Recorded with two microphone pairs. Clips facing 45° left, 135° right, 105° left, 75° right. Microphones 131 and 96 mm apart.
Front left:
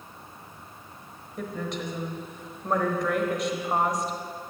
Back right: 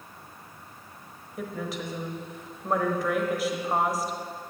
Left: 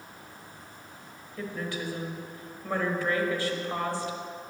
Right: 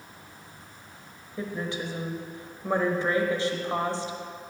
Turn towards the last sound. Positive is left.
turn(degrees=-60)